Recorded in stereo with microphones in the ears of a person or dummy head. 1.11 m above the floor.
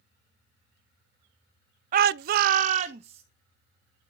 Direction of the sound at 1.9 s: 40° right (ahead or behind).